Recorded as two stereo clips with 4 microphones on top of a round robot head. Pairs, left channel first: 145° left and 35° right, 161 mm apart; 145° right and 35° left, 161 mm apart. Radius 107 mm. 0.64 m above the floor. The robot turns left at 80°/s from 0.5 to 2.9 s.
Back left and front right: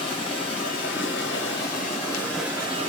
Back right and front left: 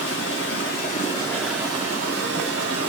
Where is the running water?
160° right, 1.5 m; by 2.9 s 10° left, 1.5 m.